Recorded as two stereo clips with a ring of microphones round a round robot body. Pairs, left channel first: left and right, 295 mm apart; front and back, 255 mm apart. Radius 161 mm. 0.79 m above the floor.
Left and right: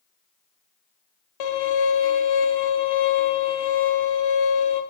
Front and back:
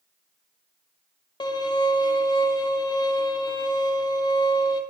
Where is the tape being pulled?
I don't hear tape being pulled.